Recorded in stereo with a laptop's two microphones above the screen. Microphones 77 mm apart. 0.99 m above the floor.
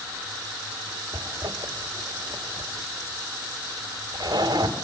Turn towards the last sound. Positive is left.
turn(degrees=-60)  # may be behind; listen again after turning